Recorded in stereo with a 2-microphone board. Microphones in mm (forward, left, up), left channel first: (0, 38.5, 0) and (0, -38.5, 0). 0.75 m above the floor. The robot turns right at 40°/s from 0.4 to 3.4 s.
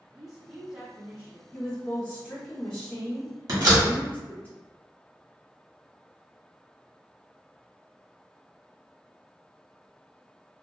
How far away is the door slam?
About 1.2 m.